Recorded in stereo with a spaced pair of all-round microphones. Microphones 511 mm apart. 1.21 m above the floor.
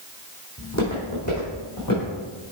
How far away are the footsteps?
About 3.5 m.